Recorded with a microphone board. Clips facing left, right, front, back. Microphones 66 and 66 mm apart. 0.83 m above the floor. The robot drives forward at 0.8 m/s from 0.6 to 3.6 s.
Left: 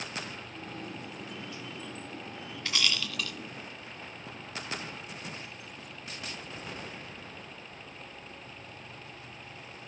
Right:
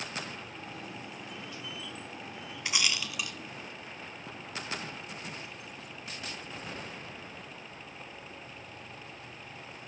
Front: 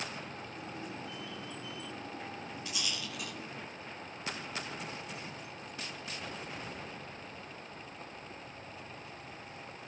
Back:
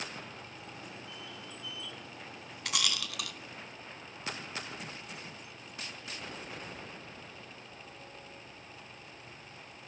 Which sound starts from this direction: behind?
A rattle, at 2.6 s.